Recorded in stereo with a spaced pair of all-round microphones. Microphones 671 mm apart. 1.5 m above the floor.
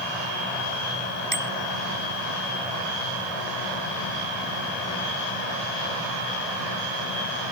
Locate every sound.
1.3 s a bicycle bell: 45° right (ahead or behind)